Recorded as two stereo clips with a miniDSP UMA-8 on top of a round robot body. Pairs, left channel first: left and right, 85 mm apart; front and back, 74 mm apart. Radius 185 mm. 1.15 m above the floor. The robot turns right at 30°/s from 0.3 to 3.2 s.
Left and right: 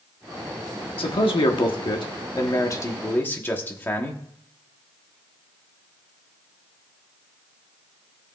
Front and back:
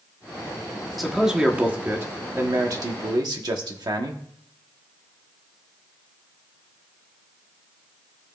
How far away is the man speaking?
About 1.3 m.